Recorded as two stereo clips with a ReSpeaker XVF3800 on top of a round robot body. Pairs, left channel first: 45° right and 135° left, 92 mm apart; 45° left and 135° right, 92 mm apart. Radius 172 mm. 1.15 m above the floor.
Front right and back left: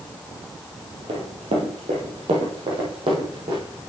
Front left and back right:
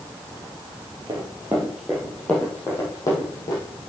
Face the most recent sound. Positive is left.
turn(degrees=95)